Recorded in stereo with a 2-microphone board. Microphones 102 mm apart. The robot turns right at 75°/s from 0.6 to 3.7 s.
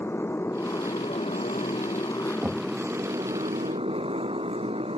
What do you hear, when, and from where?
0.0 s a motorcycle: 25° left; by 5.0 s 105° right
2.4 s knocking: 20° right (ahead or behind); by 2.7 s centre (ahead or behind)